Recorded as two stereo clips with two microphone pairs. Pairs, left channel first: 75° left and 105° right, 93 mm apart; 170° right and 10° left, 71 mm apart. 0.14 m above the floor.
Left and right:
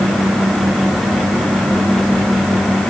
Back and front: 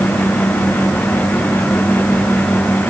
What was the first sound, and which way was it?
Only background noise.